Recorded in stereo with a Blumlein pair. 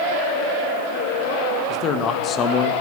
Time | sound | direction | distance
1.7 | a man speaking | 35° left | 2 m